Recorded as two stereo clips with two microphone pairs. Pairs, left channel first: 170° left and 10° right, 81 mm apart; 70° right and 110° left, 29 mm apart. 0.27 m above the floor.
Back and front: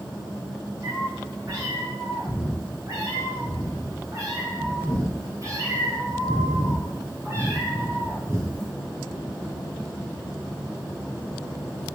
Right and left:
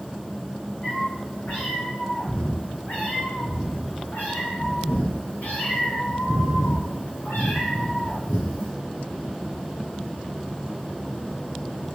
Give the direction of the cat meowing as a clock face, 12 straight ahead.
2 o'clock.